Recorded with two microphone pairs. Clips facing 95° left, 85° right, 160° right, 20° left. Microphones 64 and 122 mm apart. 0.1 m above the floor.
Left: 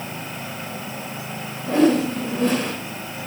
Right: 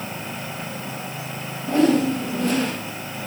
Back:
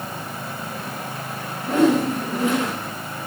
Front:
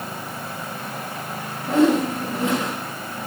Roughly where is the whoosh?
Behind left.